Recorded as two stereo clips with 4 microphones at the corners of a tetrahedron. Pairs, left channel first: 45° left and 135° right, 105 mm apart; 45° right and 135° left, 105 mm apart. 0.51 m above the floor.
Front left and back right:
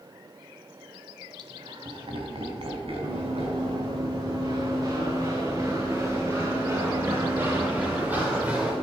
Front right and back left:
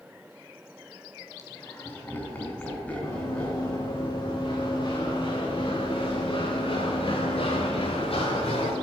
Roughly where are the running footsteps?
Right.